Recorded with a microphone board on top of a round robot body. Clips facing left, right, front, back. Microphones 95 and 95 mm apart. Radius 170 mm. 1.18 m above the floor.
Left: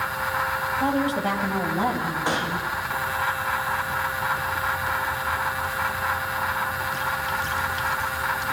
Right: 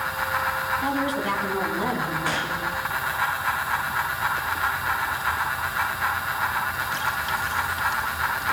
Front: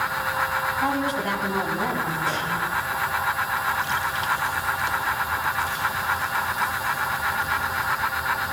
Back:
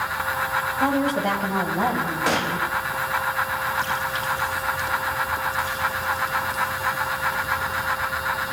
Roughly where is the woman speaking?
Behind left.